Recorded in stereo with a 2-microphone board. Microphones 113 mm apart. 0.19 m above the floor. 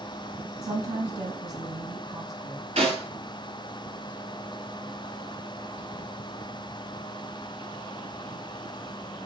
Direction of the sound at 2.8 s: 70° right (ahead or behind).